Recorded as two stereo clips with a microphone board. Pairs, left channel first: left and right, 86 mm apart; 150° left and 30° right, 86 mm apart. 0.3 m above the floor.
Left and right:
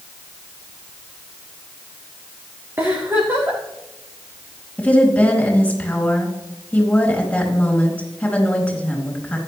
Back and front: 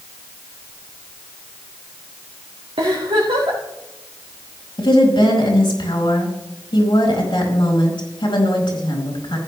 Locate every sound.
2.8 s a giggle: 30° right, 3.5 m
4.8 s a woman speaking: 165° left, 3.5 m